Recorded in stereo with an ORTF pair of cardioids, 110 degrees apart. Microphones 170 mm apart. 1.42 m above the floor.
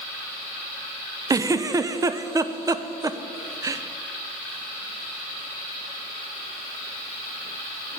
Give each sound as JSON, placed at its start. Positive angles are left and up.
{"t": 1.3, "sound": "a giggle", "azimuth_deg": -20, "distance_m": 0.6}